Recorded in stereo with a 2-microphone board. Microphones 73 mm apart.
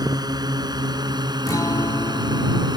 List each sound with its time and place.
0.0 s a drone: 70° right (ahead or behind); by 2.8 s 75° right (ahead or behind)
1.5 s a guitar: 55° left (ahead or behind)